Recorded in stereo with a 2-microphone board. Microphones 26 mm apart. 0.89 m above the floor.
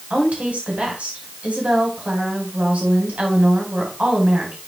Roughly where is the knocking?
No knocking in this recording.